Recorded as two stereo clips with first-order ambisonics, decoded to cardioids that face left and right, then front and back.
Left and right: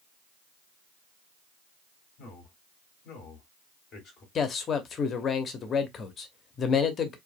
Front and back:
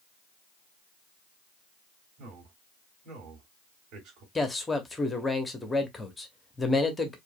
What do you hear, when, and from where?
2.2 s a man speaking: 145° left, 2.5 m
4.3 s a man speaking: 70° left, 0.8 m